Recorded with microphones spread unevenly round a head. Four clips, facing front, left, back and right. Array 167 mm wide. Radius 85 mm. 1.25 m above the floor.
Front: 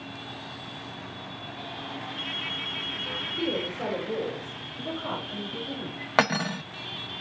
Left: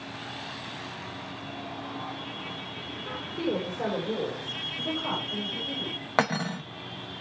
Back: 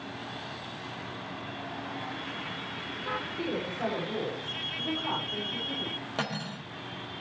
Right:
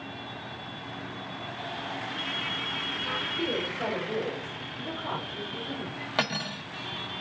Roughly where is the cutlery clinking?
Ahead left.